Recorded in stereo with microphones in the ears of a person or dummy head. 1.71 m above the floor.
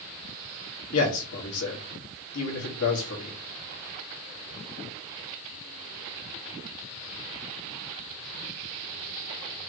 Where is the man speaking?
80° left, 1.7 m.